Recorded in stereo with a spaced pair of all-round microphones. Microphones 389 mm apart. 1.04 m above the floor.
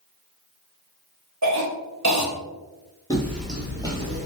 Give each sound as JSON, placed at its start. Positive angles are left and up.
{"t": 1.4, "sound": "a cough", "side_deg": -45, "distance_m": 1.1}
{"t": 3.1, "sound": "footsteps", "side_deg": 10, "distance_m": 1.0}